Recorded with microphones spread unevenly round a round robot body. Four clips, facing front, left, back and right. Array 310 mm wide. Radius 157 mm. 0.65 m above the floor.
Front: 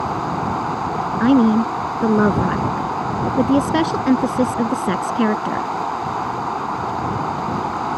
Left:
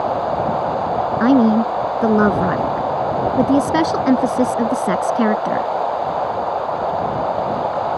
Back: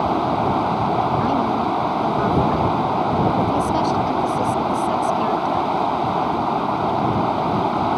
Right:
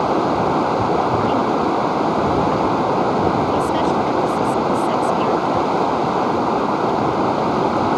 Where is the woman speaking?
45° left.